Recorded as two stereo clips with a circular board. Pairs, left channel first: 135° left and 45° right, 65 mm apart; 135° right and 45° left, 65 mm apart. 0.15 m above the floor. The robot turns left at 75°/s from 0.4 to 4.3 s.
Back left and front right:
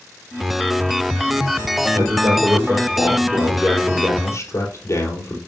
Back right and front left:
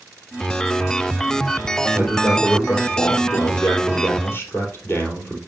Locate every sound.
1.9 s a man speaking: 10° right, 4 m; by 5.4 s 170° left, 4 m